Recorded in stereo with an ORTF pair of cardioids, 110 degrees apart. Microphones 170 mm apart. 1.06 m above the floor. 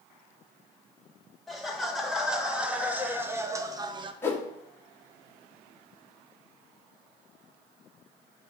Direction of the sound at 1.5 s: Straight ahead.